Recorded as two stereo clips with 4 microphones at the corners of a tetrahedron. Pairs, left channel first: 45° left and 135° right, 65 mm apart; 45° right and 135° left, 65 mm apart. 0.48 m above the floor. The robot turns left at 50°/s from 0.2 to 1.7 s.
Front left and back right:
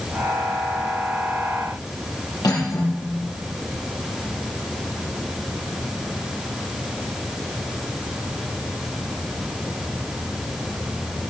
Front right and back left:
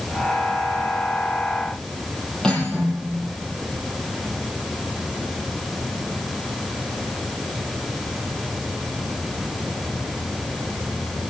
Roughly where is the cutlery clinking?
Ahead left.